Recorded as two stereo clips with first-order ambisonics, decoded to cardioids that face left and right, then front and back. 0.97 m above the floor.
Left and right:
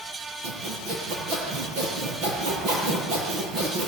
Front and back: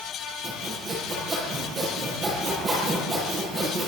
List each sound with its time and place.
0.4 s sawing: 110° right, 9 m